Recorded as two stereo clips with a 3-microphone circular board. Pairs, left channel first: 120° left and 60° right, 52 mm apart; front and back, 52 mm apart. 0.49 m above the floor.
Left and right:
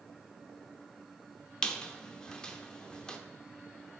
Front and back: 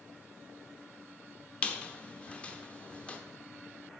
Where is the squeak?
55° left, 0.8 m.